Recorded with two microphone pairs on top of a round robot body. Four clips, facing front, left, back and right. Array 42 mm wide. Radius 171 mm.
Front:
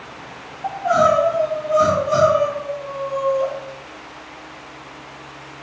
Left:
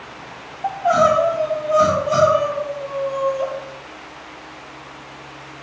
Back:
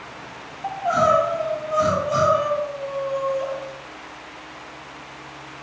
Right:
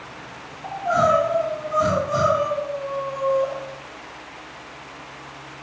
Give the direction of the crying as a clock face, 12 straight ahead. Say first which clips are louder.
Left 4 dB, front 3 dB; 9 o'clock.